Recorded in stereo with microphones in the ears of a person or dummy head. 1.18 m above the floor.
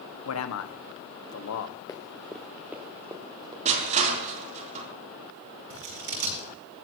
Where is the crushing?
35° right (ahead or behind), 3.5 m.